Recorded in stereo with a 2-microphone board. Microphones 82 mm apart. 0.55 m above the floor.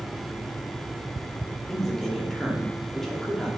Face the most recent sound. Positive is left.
turn(degrees=5)  # may be behind; listen again after turning